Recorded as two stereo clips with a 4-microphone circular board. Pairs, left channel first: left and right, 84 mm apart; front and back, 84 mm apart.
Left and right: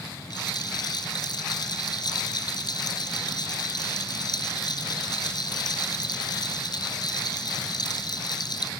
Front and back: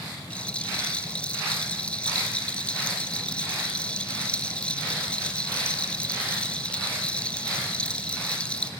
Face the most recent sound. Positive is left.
turn(degrees=75)